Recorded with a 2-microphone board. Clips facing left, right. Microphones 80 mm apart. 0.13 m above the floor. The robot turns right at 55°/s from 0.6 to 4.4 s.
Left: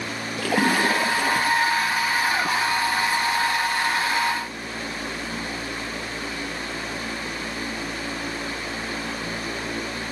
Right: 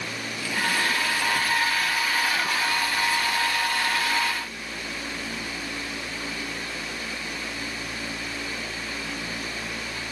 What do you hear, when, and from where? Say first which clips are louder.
0.4 s a splash: left 6 dB; 85° left; by 1.9 s 155° left